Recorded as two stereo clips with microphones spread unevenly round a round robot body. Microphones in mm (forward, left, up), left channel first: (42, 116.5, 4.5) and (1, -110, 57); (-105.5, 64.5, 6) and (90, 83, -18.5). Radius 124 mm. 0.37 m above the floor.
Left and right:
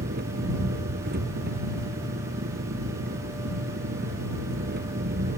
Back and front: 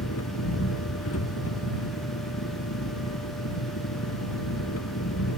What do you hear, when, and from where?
0.0 s an engine running: 150° right